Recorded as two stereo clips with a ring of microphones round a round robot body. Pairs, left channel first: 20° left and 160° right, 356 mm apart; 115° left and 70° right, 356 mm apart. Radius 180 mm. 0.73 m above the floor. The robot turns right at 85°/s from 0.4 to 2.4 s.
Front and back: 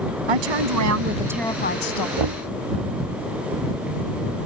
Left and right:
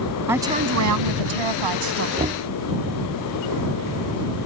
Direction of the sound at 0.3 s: 150° right.